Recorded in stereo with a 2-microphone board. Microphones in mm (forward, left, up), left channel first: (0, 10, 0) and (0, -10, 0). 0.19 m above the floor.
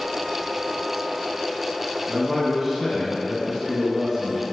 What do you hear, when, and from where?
2.1 s a man speaking: 20° right (ahead or behind), 1.2 m